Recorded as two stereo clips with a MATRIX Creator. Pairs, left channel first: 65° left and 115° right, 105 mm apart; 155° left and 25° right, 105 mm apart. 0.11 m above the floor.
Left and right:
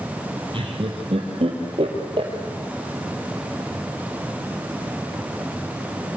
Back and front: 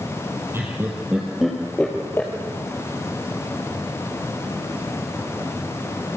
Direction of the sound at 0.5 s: 85° right.